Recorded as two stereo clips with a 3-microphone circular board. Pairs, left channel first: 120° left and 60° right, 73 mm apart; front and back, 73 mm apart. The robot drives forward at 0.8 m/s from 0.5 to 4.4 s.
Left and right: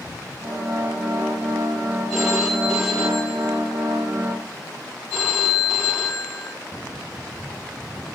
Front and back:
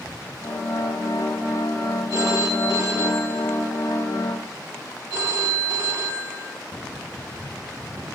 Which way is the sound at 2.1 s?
145° right.